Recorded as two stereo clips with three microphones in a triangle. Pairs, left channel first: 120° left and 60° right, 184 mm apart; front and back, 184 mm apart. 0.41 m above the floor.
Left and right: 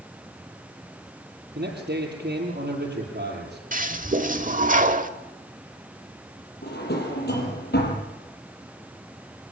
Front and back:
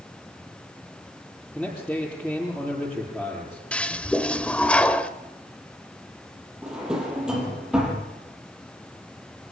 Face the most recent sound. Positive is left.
turn(degrees=95)